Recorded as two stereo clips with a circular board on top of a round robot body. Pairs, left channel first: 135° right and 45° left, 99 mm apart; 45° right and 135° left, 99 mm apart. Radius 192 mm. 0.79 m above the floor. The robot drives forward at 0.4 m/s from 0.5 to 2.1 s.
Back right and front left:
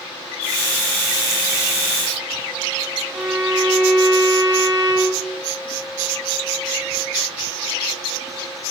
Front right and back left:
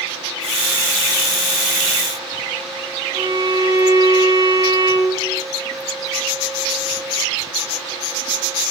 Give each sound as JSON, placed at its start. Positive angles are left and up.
{"t": 3.1, "sound": "a violin", "azimuth_deg": 125, "distance_m": 8.5}